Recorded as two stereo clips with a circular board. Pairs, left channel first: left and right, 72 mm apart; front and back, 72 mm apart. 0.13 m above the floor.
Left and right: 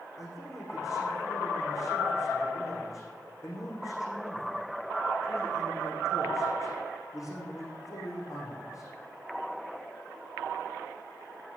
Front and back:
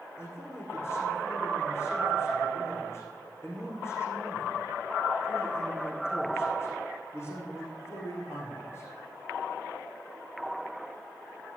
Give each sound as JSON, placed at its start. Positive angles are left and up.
{"t": 0.2, "sound": "a man speaking", "azimuth_deg": 50, "distance_m": 7.0}